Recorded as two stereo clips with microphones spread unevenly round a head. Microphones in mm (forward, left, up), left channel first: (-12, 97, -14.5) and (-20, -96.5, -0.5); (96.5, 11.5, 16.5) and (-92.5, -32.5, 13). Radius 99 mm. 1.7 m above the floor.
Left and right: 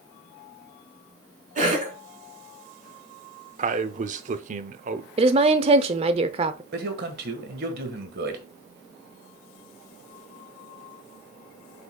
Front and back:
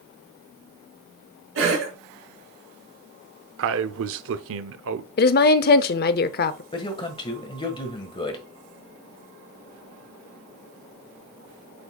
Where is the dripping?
I don't hear dripping.